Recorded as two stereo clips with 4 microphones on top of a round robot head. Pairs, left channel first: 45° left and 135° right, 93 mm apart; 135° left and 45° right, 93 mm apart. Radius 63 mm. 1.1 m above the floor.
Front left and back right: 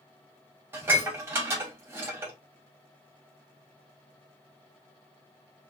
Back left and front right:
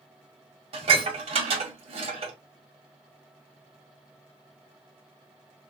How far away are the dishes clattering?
About 1.9 m.